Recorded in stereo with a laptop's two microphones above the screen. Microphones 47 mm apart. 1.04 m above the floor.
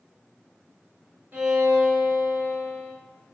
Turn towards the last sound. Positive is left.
turn(degrees=-45)  # may be behind; listen again after turning